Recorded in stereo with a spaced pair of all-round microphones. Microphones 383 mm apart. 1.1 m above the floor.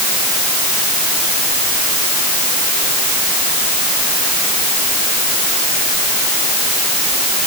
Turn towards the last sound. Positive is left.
No sound to turn to.